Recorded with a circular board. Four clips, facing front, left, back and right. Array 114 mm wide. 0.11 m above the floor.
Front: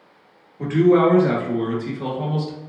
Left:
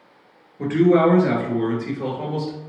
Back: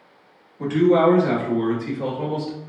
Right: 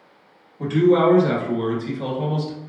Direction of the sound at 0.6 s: 60° left.